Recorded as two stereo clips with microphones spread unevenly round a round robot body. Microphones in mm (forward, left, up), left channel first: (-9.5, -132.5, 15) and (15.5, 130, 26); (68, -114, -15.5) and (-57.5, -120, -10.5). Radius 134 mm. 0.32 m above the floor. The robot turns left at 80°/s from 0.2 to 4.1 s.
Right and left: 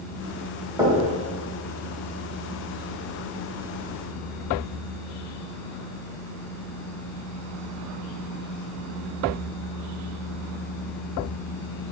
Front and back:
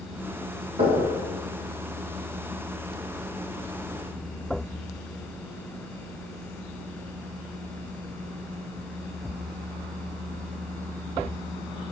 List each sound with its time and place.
0.8 s knocking: 165° left, 1.2 m; by 1.0 s 145° left, 1.2 m